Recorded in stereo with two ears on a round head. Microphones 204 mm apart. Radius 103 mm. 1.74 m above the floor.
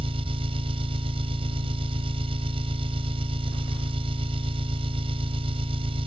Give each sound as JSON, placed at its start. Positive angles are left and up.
{"t": 0.0, "sound": "an engine running", "side_deg": -25}